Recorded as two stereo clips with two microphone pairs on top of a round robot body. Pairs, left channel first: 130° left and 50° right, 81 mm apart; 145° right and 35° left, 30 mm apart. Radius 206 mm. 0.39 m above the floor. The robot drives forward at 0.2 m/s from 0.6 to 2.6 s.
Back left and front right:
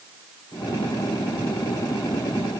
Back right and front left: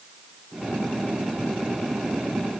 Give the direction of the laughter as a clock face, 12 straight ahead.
No laughter in this recording.